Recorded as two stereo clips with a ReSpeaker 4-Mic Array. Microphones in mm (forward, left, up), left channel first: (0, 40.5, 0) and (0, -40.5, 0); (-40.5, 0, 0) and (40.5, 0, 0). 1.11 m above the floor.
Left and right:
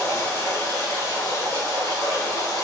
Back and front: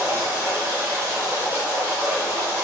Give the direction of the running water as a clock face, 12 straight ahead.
10 o'clock.